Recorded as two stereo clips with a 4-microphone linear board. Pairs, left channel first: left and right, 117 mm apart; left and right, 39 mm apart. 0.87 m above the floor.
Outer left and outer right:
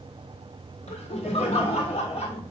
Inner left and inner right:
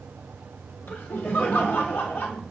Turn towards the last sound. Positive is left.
turn(degrees=70)  # may be behind; listen again after turning